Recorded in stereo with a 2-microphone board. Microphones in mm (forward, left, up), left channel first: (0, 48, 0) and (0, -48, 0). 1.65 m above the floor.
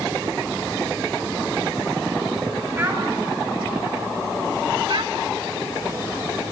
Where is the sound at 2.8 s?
25° right (ahead or behind), 7 m.